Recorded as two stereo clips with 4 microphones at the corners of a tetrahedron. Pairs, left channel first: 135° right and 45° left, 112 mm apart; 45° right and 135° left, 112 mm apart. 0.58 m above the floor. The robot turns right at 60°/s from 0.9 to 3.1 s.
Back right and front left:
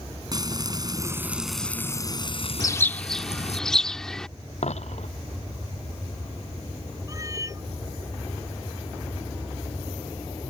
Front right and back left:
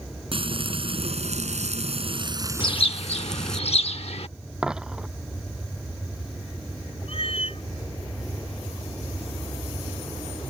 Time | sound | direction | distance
0.3 | frying | 100° left | ?
2.6 | a bird | 80° right | ?
4.6 | a dropped coin | 145° right | ?
7.1 | a cat meowing | 15° right | ?